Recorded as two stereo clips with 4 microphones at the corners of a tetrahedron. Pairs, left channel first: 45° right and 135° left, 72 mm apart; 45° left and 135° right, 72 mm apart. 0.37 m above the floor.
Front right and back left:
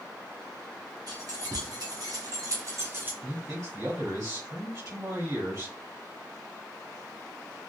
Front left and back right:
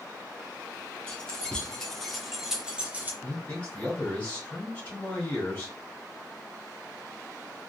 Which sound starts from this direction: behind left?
Keys jangling, at 1.1 s.